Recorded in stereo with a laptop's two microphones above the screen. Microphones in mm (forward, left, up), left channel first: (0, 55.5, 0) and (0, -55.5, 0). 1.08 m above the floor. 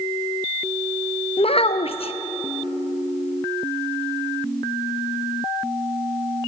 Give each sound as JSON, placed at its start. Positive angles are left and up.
{"t": 1.4, "sound": "a child speaking", "side_deg": 60, "distance_m": 0.5}